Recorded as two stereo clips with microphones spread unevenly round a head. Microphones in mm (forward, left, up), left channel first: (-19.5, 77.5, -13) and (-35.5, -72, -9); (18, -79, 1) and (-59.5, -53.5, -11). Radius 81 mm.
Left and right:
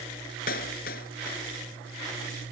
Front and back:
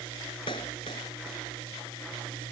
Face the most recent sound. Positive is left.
turn(degrees=40)